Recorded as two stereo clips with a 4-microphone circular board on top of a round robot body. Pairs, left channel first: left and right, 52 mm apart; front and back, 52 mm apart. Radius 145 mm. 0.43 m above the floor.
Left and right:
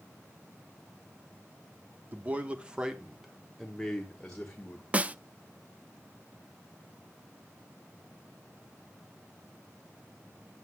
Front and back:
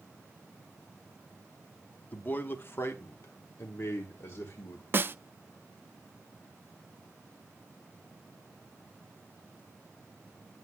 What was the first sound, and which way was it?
A man speaking, 45° right.